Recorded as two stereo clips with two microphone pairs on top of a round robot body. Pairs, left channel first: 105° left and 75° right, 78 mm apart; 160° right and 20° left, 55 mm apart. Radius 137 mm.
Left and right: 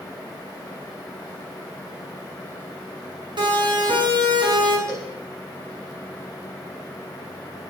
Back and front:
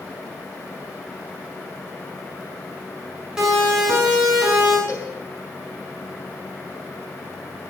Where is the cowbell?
125° right, 7.5 m.